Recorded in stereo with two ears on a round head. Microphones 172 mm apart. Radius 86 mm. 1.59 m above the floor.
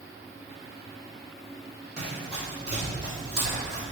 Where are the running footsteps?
5° right (ahead or behind), 2.0 m.